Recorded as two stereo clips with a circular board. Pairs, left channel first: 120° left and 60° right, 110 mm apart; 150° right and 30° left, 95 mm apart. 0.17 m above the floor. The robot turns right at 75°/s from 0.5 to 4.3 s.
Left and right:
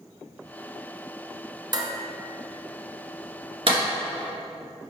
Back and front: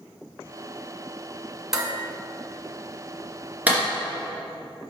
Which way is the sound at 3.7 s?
45° right.